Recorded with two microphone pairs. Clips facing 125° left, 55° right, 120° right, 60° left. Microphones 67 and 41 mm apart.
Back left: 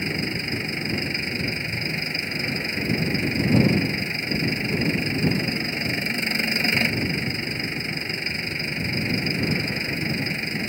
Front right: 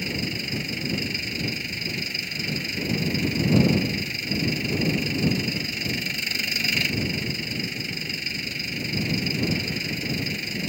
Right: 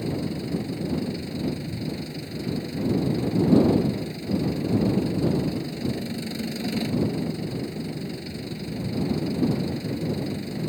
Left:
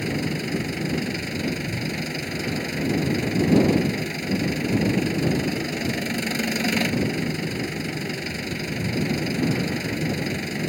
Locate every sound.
0.0 s an engine running: 70° left